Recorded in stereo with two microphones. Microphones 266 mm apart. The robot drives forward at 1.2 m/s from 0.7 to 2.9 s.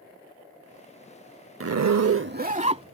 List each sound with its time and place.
1.6 s a zipper: 55° right (ahead or behind); by 2.9 s 20° right (ahead or behind)